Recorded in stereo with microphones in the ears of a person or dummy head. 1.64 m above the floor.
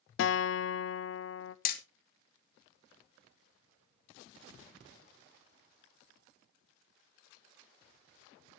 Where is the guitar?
65° left (ahead or behind), 0.7 m.